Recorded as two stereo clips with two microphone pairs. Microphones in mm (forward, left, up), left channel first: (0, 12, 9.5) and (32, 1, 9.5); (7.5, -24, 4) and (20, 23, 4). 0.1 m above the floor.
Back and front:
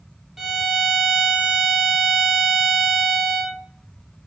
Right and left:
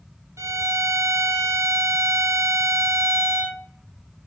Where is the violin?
60° left, 0.5 m.